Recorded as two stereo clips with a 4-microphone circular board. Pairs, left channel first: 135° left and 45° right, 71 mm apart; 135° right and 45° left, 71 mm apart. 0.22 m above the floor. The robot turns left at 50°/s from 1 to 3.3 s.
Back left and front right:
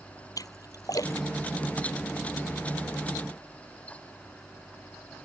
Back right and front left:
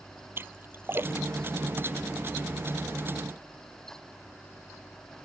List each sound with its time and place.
0.4 s a splash: 105° left; by 2.1 s 45° left